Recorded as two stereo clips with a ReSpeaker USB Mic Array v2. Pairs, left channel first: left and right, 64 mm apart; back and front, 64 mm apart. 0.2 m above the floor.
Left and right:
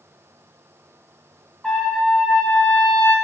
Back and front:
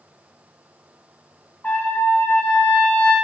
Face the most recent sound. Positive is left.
turn(degrees=175)